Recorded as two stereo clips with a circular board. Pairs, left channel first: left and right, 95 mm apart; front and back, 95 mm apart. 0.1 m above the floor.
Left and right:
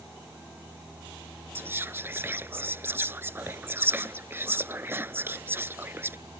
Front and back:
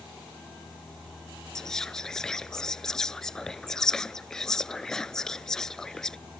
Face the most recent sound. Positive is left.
turn(degrees=-75)